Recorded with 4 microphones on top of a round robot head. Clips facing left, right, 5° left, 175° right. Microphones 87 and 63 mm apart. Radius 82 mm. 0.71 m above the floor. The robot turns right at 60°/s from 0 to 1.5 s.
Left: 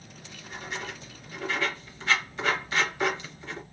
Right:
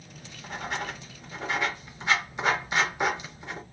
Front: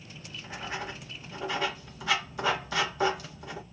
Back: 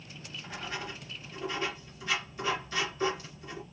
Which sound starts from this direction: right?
Writing, at 0.1 s.